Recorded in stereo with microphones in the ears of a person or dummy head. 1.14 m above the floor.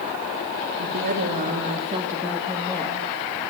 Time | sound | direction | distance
0.8 | a woman speaking | 60° right (ahead or behind) | 1.8 m